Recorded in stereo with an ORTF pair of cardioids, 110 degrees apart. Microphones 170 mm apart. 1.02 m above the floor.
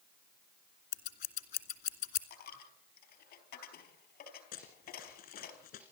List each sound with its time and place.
0.9 s scissors: 65° left, 2.5 m
2.3 s a dropped coin: 70° left, 4 m
4.5 s running footsteps: 70° left, 3.5 m